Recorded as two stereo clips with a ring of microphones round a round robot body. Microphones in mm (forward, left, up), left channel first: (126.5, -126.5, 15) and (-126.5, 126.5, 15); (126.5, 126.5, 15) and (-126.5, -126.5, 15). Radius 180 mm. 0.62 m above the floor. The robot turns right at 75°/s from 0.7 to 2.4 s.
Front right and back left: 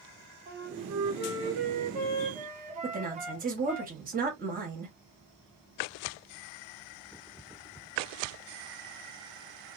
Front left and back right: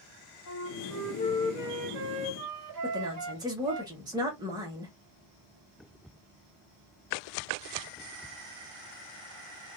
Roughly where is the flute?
Left.